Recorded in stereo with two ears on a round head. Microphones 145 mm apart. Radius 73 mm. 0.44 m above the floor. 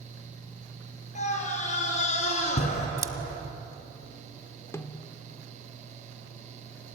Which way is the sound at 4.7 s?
20° left (ahead or behind).